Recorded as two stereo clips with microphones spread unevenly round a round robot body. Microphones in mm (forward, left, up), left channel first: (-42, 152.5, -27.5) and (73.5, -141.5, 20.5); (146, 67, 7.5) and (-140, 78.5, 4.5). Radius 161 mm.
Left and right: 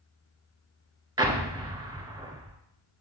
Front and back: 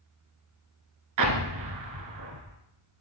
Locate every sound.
1.2 s an explosion: 145° right, 1.0 m